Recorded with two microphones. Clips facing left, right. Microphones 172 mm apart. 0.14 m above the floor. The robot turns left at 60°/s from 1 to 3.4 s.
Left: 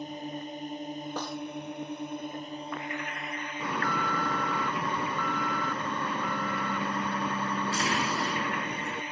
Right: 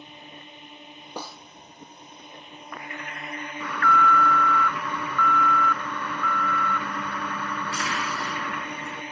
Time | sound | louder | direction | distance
0.0 | a drone | left 9 dB | 135° left | ?
1.2 | a snare drum | right 1 dB | 10° right (ahead or behind) | ?
3.6 | an alarm | right 7 dB | 25° left (ahead or behind) | ?